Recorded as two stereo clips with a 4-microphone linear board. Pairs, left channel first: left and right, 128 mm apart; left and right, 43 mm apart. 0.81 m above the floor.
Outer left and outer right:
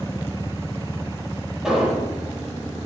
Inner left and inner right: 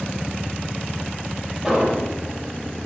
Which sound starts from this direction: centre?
An explosion, at 1.6 s.